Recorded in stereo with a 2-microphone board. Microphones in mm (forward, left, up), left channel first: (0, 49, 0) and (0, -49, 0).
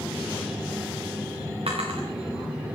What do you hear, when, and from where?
1.7 s a drawer: 85° right, 3.5 m